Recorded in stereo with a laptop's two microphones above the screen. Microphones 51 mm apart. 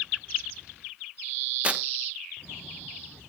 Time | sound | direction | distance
1.6 | tearing paper | 25° right (ahead or behind) | 1.0 m